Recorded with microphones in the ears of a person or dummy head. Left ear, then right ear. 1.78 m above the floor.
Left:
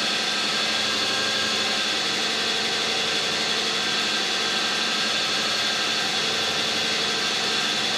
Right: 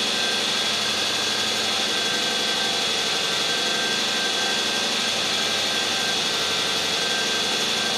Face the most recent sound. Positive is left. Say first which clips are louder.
# right 1 dB
turn(degrees=0)  # may be behind; listen again after turning